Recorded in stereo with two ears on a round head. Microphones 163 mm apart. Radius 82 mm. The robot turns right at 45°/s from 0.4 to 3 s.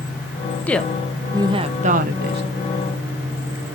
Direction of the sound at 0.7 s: 170° left.